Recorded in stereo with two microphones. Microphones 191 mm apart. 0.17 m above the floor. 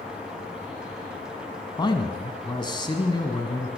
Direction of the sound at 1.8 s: 25° left (ahead or behind).